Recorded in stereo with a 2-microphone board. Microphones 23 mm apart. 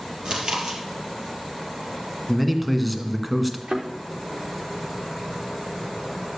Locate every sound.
0.2 s chewing: 45° right (ahead or behind), 3 m
2.3 s a man speaking: 5° left (ahead or behind), 1.4 m
3.7 s a thud: 45° right (ahead or behind), 3.5 m